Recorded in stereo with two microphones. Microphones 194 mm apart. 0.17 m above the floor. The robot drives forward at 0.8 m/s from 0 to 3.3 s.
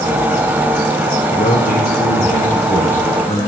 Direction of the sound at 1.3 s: 50° left (ahead or behind).